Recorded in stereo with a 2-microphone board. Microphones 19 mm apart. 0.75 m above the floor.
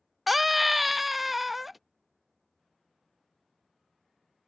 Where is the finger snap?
I don't hear a finger snap.